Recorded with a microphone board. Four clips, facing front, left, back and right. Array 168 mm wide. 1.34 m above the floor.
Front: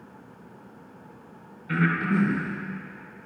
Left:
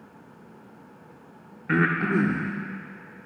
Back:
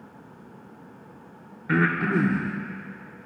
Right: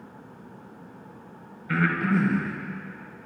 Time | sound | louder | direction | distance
1.7 | breathing | left 1 dB, back 2 dB | 135° left | 1.7 m